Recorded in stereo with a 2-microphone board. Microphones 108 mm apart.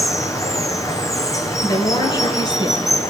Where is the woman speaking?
40° left (ahead or behind), 2 m.